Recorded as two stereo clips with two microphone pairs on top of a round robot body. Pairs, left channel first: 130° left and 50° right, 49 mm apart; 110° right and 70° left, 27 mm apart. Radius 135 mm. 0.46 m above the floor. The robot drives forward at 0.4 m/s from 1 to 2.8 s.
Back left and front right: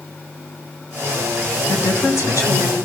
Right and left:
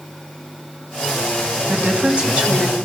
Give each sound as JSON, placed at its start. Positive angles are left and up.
{"t": 1.7, "sound": "a woman speaking", "azimuth_deg": 120, "distance_m": 4.0}